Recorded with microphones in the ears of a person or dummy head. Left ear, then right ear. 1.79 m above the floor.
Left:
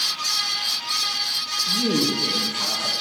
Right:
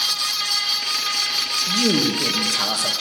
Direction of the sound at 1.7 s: 40° right (ahead or behind).